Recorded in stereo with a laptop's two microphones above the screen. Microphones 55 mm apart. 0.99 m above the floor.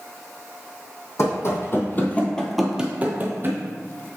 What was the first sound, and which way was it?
Running footsteps, 55° left (ahead or behind).